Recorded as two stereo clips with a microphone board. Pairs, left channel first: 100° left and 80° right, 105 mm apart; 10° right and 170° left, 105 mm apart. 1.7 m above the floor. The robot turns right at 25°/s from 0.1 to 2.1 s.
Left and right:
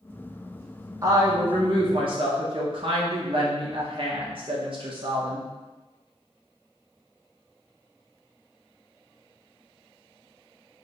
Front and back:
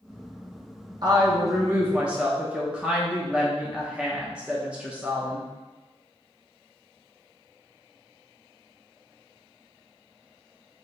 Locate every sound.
1.0 s a woman speaking: 135° right, 0.6 m; by 5.5 s 110° right, 0.6 m